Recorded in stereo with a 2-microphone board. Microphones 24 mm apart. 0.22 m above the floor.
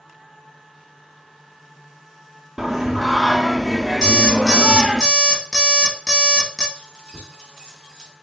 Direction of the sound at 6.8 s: 5° right (ahead or behind).